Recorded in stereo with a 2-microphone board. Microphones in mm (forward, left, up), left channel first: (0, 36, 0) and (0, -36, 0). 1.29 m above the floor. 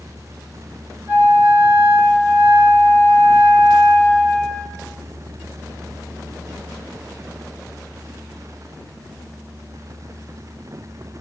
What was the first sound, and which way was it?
A flute, 30° right (ahead or behind).